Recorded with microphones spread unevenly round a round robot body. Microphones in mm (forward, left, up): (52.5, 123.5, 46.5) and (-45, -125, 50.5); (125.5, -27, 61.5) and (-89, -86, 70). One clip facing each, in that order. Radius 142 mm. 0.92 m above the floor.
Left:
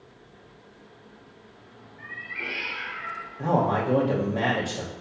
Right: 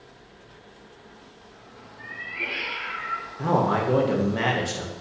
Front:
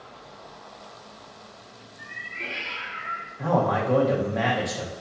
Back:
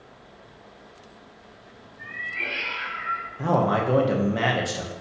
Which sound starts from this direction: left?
A cat meowing, at 2.0 s.